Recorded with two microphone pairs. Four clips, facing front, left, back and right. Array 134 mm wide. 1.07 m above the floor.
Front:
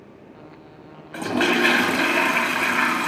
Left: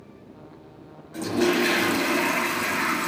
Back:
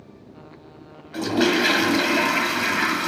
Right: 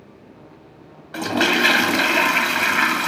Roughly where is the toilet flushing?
Right.